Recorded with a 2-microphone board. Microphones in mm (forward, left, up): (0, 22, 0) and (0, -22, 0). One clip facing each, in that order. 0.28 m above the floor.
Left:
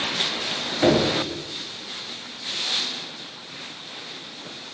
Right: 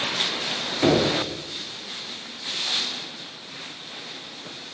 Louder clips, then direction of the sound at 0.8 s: Left 1 dB; 10° left (ahead or behind).